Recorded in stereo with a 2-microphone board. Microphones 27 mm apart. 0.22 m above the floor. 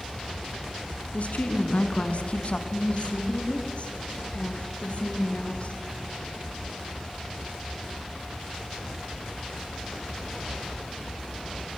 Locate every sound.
1.1 s a woman speaking: 55° left (ahead or behind), 2.5 m; by 2.6 s 40° left (ahead or behind), 2 m
2.7 s a woman speaking: 55° left (ahead or behind), 4 m